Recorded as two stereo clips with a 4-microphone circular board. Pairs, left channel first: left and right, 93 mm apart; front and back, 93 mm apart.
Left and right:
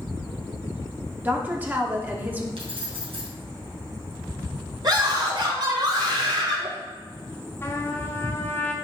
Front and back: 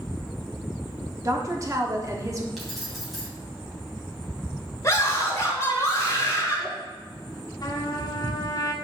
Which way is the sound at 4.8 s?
55° right.